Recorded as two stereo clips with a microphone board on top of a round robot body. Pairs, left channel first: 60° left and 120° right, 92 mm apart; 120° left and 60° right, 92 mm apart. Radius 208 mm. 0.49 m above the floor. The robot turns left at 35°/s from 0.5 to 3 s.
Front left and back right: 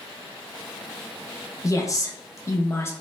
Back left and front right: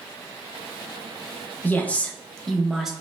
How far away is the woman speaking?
About 0.7 m.